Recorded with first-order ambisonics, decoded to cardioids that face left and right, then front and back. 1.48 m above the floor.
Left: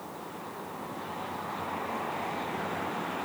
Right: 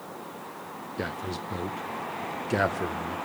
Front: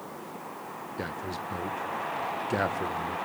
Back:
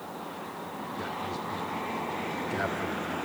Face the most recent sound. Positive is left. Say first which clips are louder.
# right 5 dB, even
turn(degrees=-60)